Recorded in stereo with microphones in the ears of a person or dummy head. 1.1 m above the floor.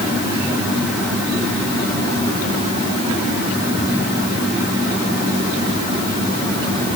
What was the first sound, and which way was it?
Only background noise.